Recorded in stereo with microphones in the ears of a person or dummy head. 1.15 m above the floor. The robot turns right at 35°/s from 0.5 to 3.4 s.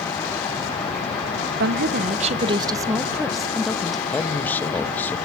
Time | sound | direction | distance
1.6 | a woman speaking | 65° right | 0.7 m
4.1 | a man speaking | 10° left (ahead or behind) | 1.2 m